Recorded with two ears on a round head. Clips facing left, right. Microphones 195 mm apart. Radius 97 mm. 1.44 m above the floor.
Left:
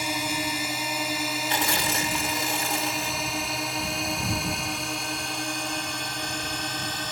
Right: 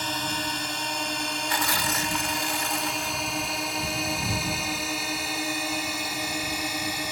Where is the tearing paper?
25° left (ahead or behind).